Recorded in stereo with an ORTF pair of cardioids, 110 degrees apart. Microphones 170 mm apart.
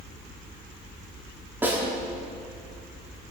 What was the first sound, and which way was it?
A snare drum, 10° right.